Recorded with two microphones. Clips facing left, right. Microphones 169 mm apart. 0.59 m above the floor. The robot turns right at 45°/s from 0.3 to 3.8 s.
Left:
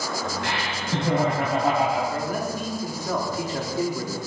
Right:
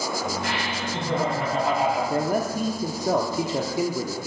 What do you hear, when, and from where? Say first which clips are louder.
0.4 s laughter: right 1 dB; 75° left, 3.5 m; by 2.0 s 145° left, 3.5 m
2.1 s a man speaking: right 3 dB; 95° right, 0.8 m; by 4.2 s 20° right, 0.8 m